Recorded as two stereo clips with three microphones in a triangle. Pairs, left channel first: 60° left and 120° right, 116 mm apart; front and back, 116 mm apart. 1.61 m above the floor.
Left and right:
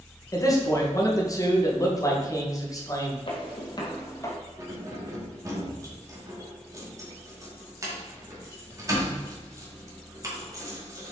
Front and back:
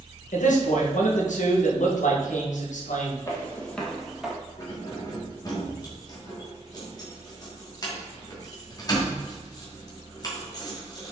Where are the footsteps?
55° left, 2 m; by 4.3 s 105° left, 1.9 m.